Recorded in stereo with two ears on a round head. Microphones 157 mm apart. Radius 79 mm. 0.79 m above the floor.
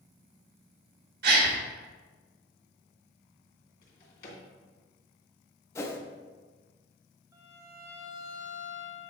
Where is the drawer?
55° left (ahead or behind), 2.5 m.